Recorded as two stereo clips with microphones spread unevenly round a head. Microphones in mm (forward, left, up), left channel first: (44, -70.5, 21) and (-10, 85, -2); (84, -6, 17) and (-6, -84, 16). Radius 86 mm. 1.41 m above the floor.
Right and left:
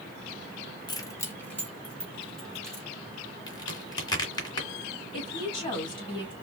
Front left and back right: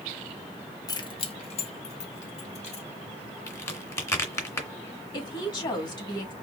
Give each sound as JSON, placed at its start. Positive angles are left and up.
{"t": 0.9, "sound": "keys jangling", "azimuth_deg": -15, "distance_m": 0.8}
{"t": 3.5, "sound": "a crack", "azimuth_deg": -20, "distance_m": 1.9}
{"t": 5.1, "sound": "a woman speaking", "azimuth_deg": -10, "distance_m": 2.5}